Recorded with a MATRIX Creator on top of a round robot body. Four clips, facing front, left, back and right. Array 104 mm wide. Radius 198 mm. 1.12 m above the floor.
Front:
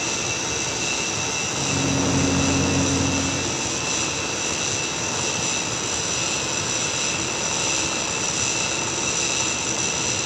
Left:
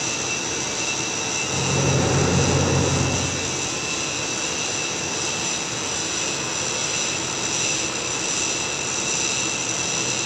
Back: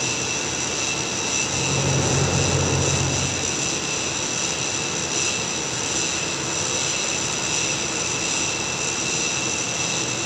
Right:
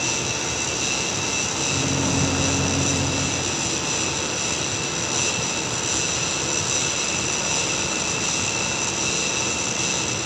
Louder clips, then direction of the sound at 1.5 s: Left 6 dB, front 1 dB; 110° left.